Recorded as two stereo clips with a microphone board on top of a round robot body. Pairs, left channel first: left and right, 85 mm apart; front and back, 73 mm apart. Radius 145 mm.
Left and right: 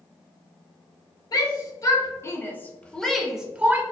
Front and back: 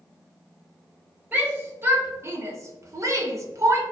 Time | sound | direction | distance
1.3 | a shout | 120° left | 1.5 m